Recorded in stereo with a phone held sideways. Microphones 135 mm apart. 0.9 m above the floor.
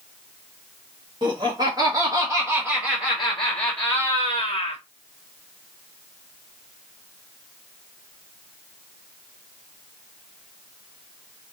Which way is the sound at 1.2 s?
40° right (ahead or behind).